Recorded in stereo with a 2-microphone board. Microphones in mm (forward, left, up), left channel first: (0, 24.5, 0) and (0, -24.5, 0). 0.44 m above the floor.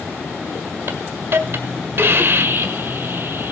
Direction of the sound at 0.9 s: 50° right (ahead or behind).